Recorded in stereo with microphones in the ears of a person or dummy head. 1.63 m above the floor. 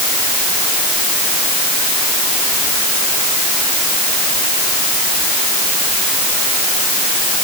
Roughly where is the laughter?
I don't hear laughter.